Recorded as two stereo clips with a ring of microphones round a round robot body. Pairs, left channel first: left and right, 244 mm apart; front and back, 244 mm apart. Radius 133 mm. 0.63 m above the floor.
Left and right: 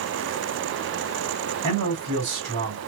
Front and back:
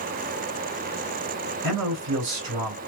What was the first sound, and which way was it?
A man speaking, 135° right.